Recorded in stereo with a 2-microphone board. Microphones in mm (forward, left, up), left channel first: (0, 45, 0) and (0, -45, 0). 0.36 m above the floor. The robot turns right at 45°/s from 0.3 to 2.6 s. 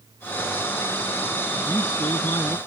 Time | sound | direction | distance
1.7 | a man speaking | 50° left | ?